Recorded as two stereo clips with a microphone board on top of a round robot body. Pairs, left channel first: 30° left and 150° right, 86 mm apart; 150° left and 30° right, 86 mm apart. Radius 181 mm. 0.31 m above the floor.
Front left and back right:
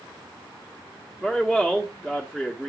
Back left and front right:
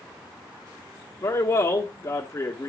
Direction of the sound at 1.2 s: 115° left.